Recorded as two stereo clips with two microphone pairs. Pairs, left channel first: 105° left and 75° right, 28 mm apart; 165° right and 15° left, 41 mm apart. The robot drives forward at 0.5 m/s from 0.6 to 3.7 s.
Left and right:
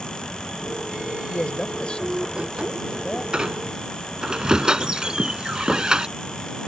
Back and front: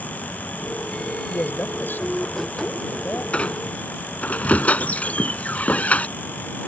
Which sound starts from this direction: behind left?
A man speaking, at 1.3 s.